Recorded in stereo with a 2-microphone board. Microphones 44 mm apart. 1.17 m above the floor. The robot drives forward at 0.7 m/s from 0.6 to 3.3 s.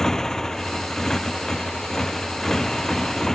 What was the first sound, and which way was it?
A motorcycle, 15° left (ahead or behind).